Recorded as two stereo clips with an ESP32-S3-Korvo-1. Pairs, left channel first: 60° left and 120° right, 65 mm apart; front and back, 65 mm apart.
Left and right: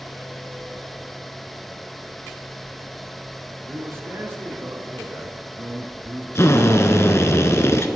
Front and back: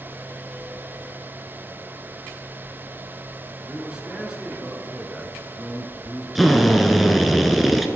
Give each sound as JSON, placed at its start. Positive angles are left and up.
{"t": 3.7, "sound": "a man speaking", "azimuth_deg": -110, "distance_m": 1.6}
{"t": 6.3, "sound": "a drill", "azimuth_deg": 90, "distance_m": 0.8}